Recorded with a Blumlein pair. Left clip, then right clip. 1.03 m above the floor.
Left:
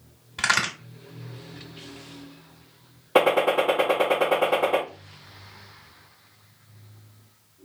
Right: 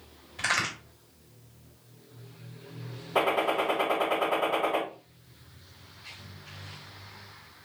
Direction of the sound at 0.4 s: 50° left.